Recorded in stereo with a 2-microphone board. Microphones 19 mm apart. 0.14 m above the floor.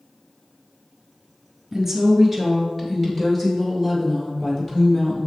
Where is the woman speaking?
15° right (ahead or behind), 1.4 m; by 5.3 s 35° left (ahead or behind), 3 m.